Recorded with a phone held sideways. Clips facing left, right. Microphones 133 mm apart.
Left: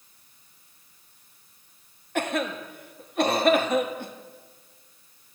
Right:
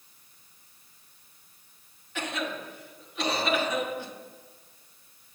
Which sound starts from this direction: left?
A cough, at 2.1 s.